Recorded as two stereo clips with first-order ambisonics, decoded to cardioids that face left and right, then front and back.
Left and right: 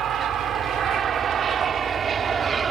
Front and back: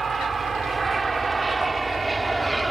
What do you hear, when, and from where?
0.0 s an aircraft: 120° right; by 2.7 s 110° right